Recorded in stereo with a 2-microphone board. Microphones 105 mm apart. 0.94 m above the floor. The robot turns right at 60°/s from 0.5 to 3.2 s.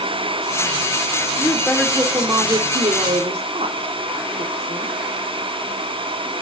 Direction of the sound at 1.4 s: 155° left.